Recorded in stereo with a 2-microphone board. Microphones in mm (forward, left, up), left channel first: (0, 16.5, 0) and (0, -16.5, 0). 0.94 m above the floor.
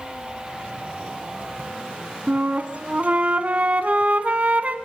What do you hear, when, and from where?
2.3 s a flute: 45° right (ahead or behind), 1.7 m